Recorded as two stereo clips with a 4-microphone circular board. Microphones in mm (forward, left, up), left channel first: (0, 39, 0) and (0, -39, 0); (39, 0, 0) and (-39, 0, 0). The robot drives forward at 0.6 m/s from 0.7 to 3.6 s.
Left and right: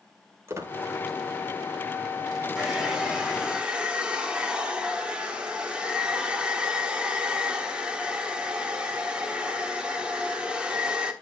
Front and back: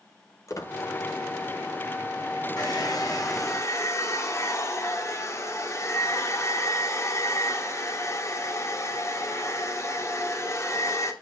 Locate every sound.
0.5 s a squeak: 40° right, 1.2 m
2.6 s a hair dryer: 10° right, 1.7 m; by 11.1 s 20° right, 1.2 m